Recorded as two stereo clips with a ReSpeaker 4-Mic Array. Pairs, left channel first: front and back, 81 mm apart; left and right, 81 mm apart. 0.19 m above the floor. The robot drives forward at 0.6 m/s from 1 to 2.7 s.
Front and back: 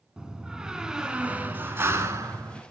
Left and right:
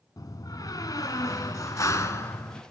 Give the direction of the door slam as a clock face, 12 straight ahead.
9 o'clock.